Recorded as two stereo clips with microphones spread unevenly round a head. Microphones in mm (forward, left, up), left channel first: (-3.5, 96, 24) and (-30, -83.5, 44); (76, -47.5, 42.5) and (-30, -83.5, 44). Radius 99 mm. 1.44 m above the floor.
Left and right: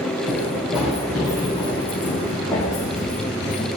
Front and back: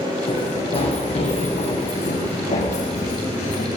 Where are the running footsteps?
20° right, 4.5 m; by 3.7 s 10° left, 5 m.